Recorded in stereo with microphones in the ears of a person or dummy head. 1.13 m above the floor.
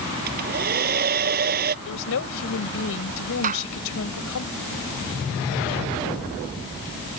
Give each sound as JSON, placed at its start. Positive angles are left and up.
{"t": 0.3, "sound": "a hair dryer", "side_deg": -45}
{"t": 1.9, "sound": "a woman speaking", "side_deg": 75}
{"t": 3.4, "sound": "a clap", "side_deg": -40}